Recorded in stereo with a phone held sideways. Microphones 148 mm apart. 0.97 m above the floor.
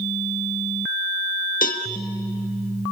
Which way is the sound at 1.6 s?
70° left (ahead or behind).